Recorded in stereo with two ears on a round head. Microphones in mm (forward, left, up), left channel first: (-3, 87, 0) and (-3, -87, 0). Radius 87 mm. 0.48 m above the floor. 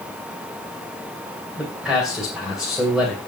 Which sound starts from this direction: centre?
A man speaking, at 1.6 s.